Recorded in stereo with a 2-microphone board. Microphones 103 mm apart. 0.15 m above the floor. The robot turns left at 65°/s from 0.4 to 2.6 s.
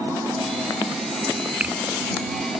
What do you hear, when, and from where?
1.6 s a finger snap: 10° right (ahead or behind); by 1.8 s 20° right (ahead or behind)